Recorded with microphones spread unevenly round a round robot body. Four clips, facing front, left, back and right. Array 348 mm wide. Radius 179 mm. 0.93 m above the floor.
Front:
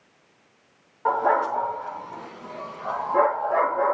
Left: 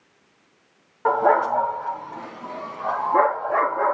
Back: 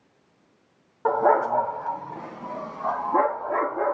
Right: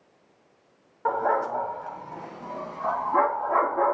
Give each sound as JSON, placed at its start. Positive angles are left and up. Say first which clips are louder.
{"t": 1.1, "sound": "a dog barking", "louder": "left 6 dB, back 1 dB", "azimuth_deg": 160, "distance_m": 1.9}